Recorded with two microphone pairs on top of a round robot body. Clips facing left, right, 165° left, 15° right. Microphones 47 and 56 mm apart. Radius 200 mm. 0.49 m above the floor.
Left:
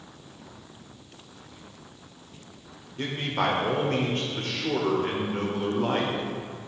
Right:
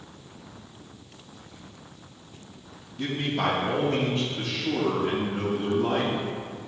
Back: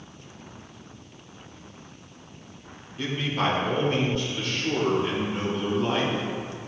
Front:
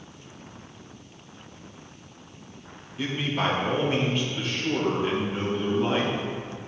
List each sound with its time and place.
3.0 s a man speaking: 75° left, 2.5 m